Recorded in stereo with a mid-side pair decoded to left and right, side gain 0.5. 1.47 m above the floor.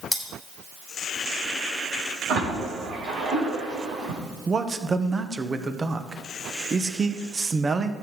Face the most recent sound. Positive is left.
turn(degrees=-30)